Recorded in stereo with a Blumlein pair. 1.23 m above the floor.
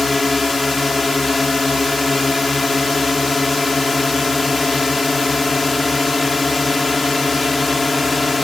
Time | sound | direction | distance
0.0 | a drone | 10° left | ?